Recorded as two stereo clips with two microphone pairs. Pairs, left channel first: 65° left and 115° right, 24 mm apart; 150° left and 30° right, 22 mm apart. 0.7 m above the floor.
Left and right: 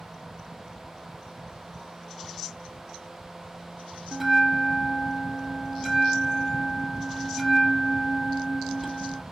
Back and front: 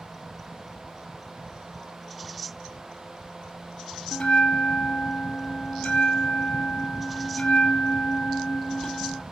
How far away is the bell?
About 1.3 m.